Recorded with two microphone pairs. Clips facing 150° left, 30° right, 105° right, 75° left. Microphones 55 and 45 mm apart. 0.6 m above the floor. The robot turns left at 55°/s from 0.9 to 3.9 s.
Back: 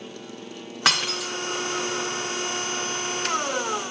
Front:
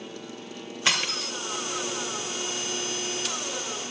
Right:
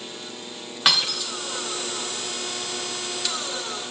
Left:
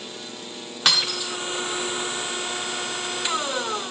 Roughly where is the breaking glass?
Behind.